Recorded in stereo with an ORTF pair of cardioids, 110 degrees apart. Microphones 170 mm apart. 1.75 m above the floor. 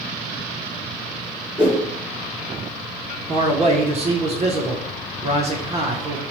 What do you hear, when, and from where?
1.6 s a whoosh: 10° right, 1.3 m
3.3 s a man speaking: 40° right, 0.8 m